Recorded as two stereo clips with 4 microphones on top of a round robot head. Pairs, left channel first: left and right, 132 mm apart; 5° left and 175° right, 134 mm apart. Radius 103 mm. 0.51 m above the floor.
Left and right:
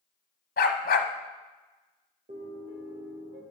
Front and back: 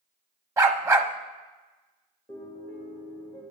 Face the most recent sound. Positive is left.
turn(degrees=-70)